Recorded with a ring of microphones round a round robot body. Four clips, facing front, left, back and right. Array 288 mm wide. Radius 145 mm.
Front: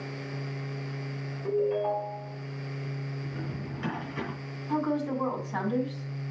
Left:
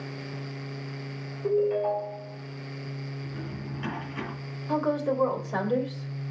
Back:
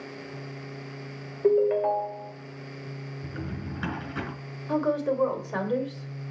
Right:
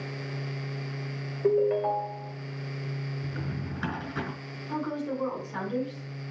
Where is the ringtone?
160° right, 1.9 m.